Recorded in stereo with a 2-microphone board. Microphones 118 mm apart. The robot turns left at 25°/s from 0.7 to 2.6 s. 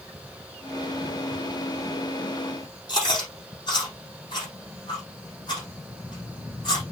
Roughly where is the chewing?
Left.